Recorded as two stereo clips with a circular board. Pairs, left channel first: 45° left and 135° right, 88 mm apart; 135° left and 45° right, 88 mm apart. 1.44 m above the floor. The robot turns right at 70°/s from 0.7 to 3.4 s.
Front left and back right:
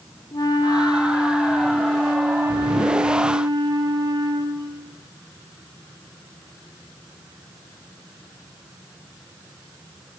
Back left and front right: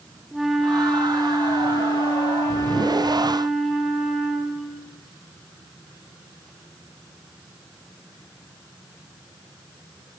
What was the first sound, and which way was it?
A flute, 40° left.